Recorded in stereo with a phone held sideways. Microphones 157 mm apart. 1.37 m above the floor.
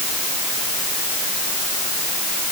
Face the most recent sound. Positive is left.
No sound to turn to.